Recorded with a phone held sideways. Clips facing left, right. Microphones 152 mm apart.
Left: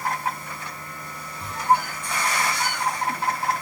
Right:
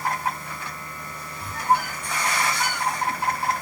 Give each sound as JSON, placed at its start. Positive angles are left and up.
{"t": 1.4, "sound": "a squeak", "side_deg": 25, "distance_m": 2.0}